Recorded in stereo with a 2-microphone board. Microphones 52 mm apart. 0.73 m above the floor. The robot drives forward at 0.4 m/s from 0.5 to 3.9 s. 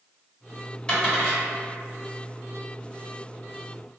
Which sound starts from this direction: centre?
A dropped coin, at 0.9 s.